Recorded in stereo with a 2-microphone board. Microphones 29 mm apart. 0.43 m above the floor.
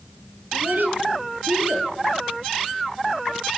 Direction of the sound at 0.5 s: 85° right.